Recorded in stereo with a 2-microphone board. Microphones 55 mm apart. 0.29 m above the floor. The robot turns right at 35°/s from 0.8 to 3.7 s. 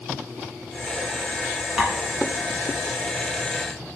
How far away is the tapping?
About 1.0 m.